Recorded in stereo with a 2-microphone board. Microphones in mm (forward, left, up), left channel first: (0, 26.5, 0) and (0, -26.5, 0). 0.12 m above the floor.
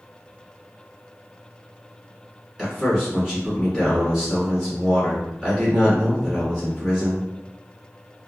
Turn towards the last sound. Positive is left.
turn(degrees=-15)  # may be behind; listen again after turning